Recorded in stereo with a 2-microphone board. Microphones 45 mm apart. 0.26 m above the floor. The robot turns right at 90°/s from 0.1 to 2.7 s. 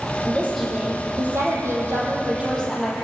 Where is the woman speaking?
145° left, 8.5 m; by 2.9 s 5° left, 8.5 m.